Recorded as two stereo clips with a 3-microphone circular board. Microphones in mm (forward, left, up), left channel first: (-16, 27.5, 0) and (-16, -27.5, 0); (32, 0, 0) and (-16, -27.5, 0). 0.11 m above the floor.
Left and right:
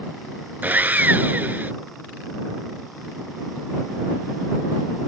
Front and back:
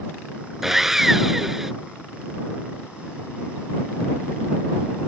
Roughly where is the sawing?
Right.